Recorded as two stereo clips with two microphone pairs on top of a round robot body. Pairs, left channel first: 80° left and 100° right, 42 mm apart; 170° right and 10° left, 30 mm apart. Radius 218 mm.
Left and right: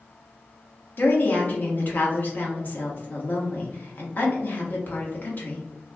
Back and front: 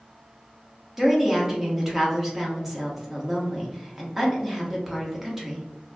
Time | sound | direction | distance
1.0 | a woman speaking | 75° left | 1.4 m